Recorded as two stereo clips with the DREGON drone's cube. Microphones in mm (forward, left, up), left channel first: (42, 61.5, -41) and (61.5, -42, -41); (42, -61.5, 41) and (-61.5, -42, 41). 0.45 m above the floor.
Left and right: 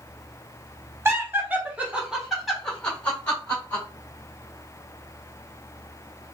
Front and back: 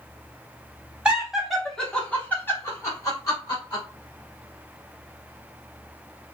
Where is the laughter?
120° right, 1.4 m; by 3.8 s 35° left, 1.8 m.